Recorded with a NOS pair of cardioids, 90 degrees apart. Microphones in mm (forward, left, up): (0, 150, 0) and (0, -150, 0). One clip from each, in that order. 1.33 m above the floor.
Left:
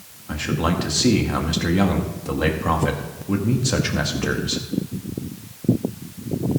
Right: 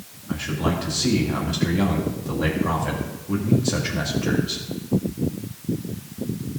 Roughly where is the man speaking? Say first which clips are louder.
Left 2 dB; ahead left.